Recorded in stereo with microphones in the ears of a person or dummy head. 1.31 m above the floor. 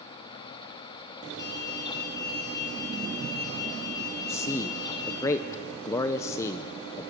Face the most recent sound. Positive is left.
turn(degrees=20)  # may be behind; listen again after turning